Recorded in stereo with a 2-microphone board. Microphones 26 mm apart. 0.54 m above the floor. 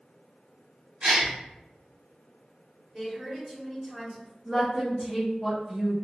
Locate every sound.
1.0 s a gasp: 50° right (ahead or behind), 1.6 m
2.9 s a woman speaking: 5° right (ahead or behind), 1.4 m
4.5 s a woman speaking: 5° right (ahead or behind), 0.8 m